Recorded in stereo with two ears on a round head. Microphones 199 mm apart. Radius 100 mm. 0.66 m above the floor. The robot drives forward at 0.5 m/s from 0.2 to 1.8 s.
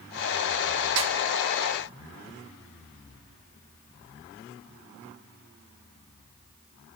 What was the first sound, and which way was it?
A snare drum, 55° right (ahead or behind).